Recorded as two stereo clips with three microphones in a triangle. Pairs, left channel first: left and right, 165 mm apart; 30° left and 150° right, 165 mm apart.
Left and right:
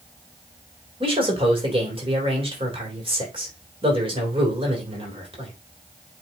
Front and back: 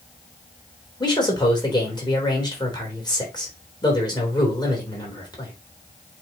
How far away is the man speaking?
About 3 m.